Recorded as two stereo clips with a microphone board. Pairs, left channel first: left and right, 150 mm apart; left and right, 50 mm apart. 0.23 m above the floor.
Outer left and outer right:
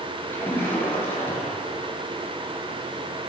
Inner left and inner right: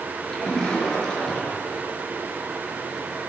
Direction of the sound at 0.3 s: 15° left (ahead or behind).